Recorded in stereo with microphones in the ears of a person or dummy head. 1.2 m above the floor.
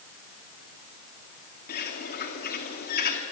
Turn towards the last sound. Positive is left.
turn(degrees=50)  # may be behind; listen again after turning